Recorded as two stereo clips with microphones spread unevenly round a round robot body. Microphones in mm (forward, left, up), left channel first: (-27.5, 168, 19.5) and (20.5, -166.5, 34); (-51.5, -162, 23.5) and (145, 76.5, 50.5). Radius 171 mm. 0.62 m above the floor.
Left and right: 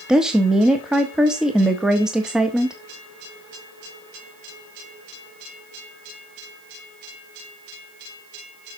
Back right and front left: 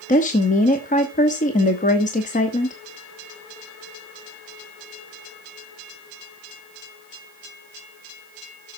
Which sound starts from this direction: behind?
A woman speaking, at 0.1 s.